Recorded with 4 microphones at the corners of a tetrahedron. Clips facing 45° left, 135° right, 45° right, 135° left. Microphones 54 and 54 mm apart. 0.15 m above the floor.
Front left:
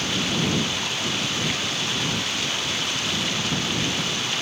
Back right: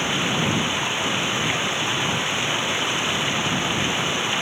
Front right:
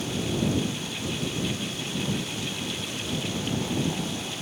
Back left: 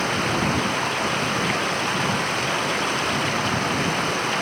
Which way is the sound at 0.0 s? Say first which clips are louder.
Back right 2 dB, back left 6 dB; 160° left.